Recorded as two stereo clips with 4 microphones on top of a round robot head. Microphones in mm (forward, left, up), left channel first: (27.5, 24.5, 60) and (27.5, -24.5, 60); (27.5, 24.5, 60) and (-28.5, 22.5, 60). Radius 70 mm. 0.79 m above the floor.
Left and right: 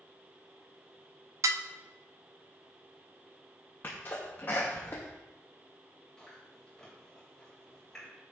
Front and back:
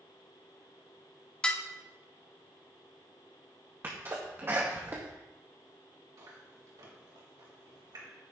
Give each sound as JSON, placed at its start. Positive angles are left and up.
{"t": 1.4, "sound": "dishes clattering", "azimuth_deg": -75, "distance_m": 0.5}
{"t": 3.8, "sound": "a sneeze", "azimuth_deg": 130, "distance_m": 0.9}
{"t": 6.2, "sound": "chewing", "azimuth_deg": 170, "distance_m": 2.5}